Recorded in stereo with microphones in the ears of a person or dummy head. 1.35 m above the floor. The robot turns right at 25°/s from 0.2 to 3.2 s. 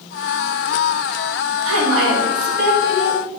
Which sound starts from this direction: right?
A woman speaking, at 1.6 s.